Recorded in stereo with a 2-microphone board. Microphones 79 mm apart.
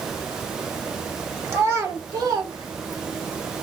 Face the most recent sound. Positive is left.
turn(degrees=-85)